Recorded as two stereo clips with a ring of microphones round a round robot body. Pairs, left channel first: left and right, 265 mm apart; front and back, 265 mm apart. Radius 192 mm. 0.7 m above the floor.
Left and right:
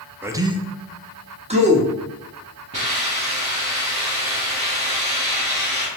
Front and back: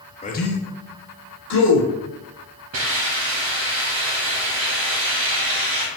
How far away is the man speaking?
About 0.5 m.